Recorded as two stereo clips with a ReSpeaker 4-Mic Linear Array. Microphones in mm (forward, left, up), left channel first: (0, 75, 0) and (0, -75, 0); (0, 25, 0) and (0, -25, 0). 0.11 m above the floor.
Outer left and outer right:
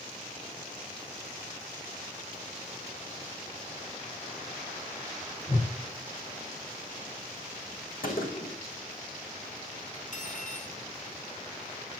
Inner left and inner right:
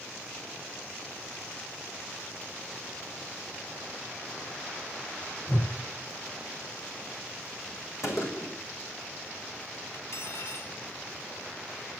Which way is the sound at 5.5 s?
45° left (ahead or behind).